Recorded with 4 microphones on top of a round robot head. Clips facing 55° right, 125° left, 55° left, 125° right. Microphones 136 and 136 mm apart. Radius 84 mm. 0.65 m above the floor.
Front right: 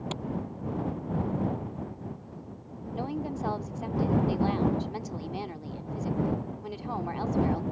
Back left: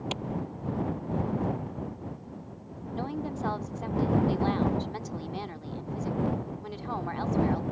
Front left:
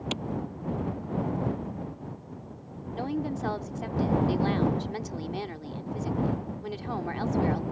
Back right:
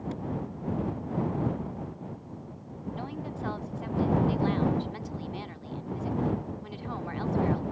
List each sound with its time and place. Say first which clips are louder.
0.1 s a clap: back left 1 dB, front left 3 dB; 50° left
3.0 s a woman speaking: even, front left 8 dB; 20° left